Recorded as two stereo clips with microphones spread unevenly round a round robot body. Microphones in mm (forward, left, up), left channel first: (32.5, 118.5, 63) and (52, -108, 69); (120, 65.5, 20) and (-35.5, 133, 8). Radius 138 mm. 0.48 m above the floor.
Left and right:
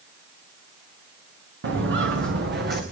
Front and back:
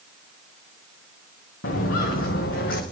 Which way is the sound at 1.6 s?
50° right.